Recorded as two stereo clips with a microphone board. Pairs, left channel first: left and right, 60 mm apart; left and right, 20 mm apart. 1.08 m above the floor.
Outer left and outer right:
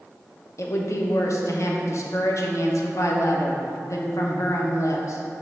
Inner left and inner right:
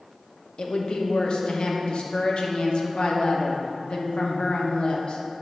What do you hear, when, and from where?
0.6 s a woman speaking: 55° left (ahead or behind), 0.9 m